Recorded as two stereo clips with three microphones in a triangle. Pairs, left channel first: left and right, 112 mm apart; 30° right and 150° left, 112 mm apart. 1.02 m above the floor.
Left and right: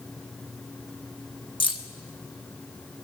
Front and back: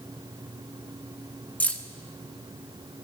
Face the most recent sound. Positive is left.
turn(degrees=45)